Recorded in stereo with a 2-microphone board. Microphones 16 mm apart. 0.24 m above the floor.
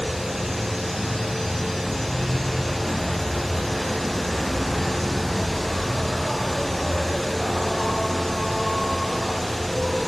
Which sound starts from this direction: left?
An insect, at 0.0 s.